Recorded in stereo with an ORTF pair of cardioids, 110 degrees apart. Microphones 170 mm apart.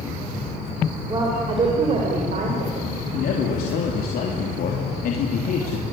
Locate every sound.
1.1 s a woman speaking: 25° right, 5 m; by 2.9 s 55° right, 5.5 m
3.1 s a man speaking: 65° left, 3.5 m